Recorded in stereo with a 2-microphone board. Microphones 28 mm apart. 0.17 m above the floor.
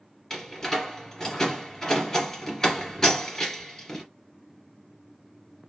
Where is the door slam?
15° left (ahead or behind), 2 m.